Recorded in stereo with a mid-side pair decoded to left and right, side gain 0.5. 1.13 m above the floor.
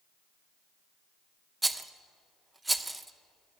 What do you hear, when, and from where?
1.6 s a rattle: 10° right, 0.6 m